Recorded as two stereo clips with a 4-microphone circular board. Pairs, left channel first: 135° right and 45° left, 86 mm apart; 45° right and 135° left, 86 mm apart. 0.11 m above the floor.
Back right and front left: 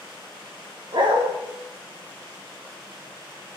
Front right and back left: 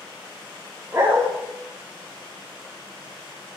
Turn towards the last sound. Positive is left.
turn(degrees=75)